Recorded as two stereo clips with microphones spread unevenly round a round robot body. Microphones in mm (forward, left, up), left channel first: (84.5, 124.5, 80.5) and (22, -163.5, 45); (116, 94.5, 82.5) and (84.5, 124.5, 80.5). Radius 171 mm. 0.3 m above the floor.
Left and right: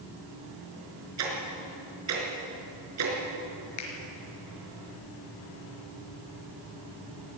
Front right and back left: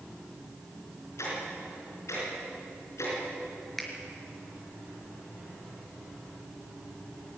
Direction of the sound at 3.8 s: 45° left.